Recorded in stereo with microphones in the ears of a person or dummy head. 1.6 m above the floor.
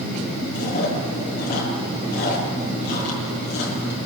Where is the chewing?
55° left (ahead or behind), 7 m.